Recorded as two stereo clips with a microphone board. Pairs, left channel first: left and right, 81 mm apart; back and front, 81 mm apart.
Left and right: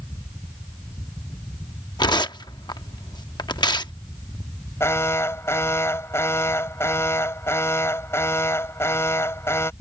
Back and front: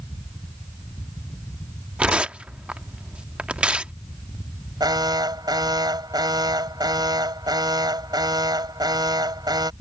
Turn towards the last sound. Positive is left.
turn(degrees=35)